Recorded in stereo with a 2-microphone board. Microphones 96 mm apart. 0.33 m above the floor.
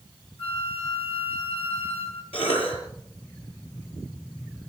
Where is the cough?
75° left (ahead or behind), 7 m.